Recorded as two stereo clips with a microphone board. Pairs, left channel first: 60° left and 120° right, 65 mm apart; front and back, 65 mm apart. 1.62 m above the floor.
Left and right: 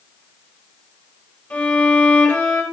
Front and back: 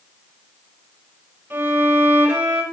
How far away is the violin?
About 4 m.